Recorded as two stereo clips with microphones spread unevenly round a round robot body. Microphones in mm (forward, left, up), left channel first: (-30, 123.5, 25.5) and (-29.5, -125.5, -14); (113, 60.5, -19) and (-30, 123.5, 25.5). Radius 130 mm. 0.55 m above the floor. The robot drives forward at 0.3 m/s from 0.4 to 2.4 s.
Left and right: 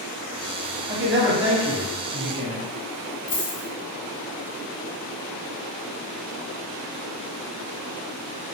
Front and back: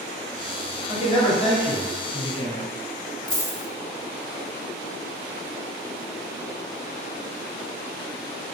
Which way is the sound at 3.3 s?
80° left.